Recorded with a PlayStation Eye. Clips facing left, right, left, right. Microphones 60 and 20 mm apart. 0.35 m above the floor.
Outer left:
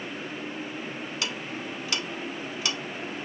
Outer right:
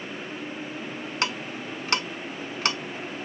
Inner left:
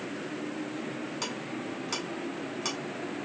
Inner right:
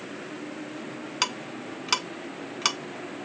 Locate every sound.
1.2 s ticking: 50° right (ahead or behind), 0.6 m